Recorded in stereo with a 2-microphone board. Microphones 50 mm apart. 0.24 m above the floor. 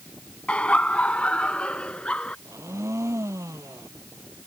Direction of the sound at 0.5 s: 25° left (ahead or behind).